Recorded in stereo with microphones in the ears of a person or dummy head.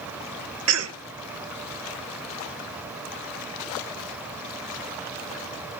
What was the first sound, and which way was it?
A cough, 80° right.